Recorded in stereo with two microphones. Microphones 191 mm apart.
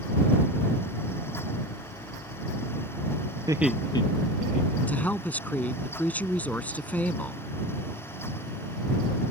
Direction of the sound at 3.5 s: 20° right (ahead or behind).